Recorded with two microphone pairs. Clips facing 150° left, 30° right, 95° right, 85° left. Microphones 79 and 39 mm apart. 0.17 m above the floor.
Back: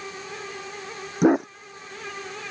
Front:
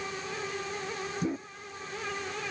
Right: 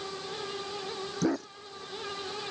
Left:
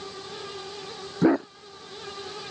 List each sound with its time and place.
1.2 s a dog barking: 145° left